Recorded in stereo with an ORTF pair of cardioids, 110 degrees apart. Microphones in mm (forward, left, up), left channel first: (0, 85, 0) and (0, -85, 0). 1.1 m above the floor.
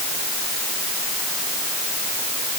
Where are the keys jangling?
No keys jangling in this recording.